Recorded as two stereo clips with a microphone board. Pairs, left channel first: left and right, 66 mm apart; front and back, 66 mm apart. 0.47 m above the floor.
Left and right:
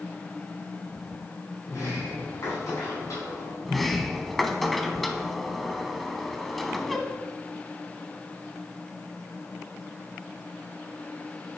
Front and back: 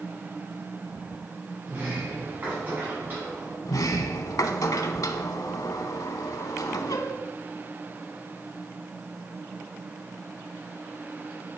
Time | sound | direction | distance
1.6 | a sliding door | 120° left | 4 m
3.6 | a sliding door | straight ahead | 0.7 m